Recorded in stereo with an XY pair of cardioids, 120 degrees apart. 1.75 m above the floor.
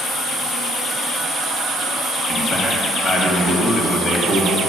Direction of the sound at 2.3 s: 40° left.